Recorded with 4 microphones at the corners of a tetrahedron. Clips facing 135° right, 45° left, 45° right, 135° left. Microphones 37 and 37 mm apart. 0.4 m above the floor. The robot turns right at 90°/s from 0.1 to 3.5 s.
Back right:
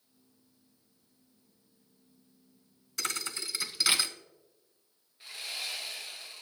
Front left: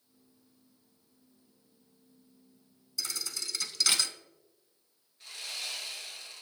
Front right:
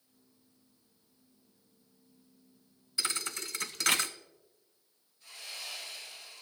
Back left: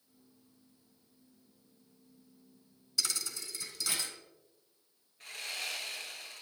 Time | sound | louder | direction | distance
3.0 | a thud | back right 3 dB, front right 2 dB | 110° right | 0.5 m
5.2 | sawing | back right 1 dB, back left 5 dB | 155° left | 1.9 m